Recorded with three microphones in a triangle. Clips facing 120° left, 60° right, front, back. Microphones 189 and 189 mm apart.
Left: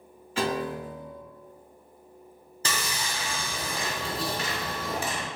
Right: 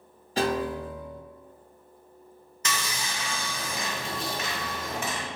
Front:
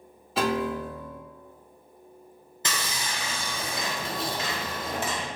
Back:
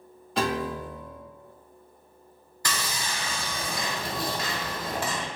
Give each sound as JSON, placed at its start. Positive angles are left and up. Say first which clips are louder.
{"t": 0.4, "sound": "a piano", "louder": "right 2 dB, front 2 dB", "azimuth_deg": -85, "distance_m": 0.7}
{"t": 2.6, "sound": "sawing", "louder": "left 1 dB, back 1 dB", "azimuth_deg": 65, "distance_m": 0.6}